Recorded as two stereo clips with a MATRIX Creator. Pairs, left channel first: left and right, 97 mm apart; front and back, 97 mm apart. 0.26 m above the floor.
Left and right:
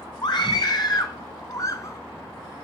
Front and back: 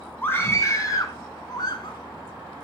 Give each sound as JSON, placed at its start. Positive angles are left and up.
{"t": 0.2, "sound": "a scream", "azimuth_deg": 65, "distance_m": 2.0}